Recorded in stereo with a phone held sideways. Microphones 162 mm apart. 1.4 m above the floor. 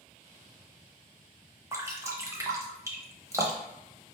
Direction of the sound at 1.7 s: 20° right (ahead or behind).